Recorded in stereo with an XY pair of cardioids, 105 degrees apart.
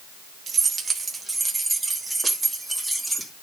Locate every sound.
0.5 s keys jangling: 35° right, 1.9 m; by 3.3 s 5° right, 3.5 m